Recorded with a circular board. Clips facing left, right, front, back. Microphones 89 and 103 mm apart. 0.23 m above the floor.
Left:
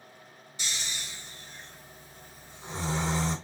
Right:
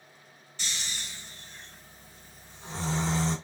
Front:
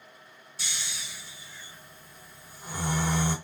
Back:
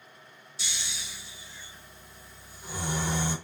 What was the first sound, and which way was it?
Snoring, 15° left.